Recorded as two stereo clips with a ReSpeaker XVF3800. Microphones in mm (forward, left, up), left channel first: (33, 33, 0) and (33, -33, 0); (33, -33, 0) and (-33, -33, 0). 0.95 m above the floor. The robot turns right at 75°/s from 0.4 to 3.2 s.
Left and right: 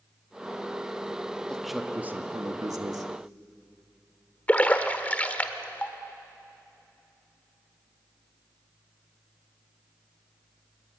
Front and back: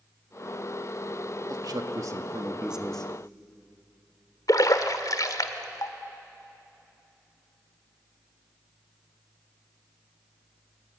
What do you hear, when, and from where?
1.5 s a man speaking: 165° left, 1.7 m; by 3.1 s 70° right, 1.7 m
4.5 s a splash: 25° left, 1.5 m